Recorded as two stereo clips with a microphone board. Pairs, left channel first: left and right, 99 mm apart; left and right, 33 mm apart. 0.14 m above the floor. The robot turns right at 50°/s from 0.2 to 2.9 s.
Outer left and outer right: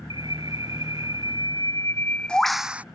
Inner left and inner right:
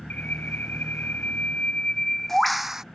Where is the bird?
65° left; by 2.8 s 165° right.